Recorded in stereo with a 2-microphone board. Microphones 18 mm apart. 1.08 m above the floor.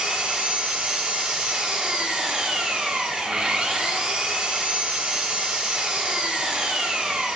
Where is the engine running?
65° right (ahead or behind), 2 m.